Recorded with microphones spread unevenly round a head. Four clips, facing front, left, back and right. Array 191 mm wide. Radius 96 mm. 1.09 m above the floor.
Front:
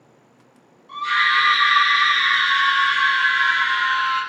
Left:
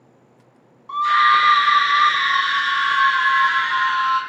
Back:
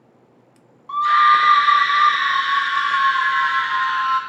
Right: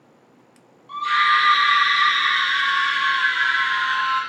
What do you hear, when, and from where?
0.9 s a scream: 145° left, 4.5 m